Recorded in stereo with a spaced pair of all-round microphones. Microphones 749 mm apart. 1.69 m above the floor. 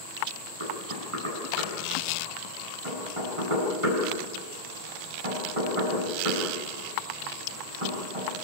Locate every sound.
0.6 s knocking: 40° right (ahead or behind), 9.5 m